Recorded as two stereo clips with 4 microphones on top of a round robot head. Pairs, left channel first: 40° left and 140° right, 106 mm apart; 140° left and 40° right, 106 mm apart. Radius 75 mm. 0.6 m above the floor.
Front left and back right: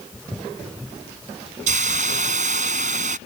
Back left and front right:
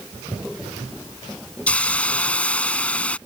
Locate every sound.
1.7 s a hiss: 140° right